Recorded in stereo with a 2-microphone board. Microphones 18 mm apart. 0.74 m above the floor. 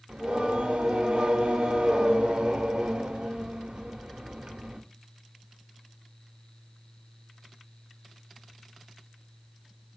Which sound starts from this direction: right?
Singing, at 0.1 s.